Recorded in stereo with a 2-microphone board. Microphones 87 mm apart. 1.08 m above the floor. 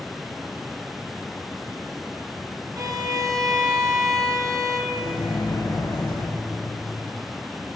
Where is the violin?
50° right (ahead or behind), 0.9 m.